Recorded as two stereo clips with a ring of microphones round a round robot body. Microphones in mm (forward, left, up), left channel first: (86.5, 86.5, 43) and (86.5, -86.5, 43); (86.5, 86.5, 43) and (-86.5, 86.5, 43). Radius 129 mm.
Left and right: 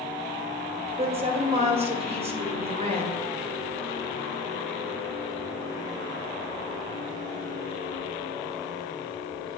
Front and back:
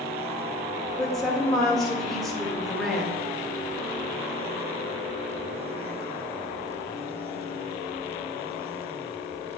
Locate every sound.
1.0 s a woman speaking: 90° right, 1.2 m